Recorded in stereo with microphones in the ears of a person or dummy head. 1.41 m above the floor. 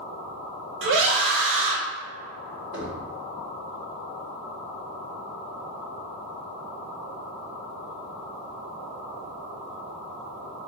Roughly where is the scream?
Right.